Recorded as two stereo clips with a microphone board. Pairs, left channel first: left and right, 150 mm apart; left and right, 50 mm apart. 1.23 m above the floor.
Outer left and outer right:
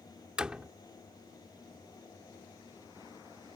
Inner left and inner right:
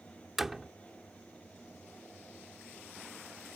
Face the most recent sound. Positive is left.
turn(degrees=-5)  # may be behind; listen again after turning